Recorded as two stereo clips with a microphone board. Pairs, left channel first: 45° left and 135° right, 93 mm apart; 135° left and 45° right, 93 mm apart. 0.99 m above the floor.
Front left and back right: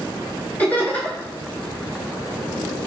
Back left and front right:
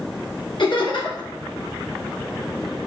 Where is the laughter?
115° left, 1.6 m.